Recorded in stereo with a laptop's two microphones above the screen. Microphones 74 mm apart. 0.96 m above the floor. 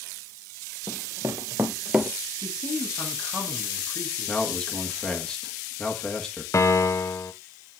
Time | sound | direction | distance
0.9 | running footsteps | 40° right (ahead or behind) | 1.4 m
2.4 | a man speaking | 40° left (ahead or behind) | 7 m
4.3 | a man speaking | 10° left (ahead or behind) | 1.3 m
6.5 | a piano | 40° left (ahead or behind) | 0.8 m